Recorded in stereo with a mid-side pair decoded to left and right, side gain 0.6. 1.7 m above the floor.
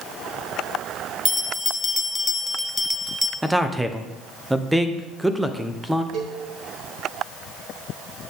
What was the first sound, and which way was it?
A bell, 10° left.